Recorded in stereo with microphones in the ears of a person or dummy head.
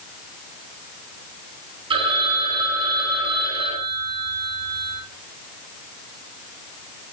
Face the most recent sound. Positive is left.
turn(degrees=-30)  # may be behind; listen again after turning